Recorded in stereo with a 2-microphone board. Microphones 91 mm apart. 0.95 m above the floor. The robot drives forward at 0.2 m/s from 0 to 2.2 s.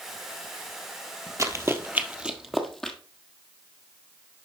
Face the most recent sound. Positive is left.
turn(degrees=5)  # may be behind; listen again after turning